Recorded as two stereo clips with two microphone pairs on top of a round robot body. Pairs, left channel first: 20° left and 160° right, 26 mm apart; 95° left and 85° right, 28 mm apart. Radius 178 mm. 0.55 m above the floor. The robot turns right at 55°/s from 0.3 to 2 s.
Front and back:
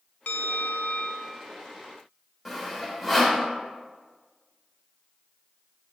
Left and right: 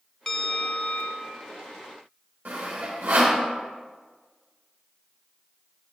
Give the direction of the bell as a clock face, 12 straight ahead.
11 o'clock.